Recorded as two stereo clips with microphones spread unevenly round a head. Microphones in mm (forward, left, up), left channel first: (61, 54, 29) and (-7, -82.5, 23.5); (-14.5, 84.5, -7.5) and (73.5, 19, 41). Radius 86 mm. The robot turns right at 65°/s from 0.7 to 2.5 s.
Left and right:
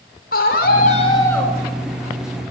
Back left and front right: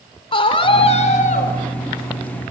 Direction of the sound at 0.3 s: 100° left.